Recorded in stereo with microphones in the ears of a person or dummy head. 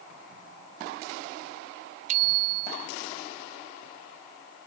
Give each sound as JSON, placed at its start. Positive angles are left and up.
{"t": 2.1, "sound": "a bicycle bell", "side_deg": -40}